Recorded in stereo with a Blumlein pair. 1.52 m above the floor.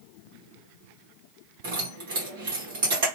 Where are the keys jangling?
55° right, 1.5 m.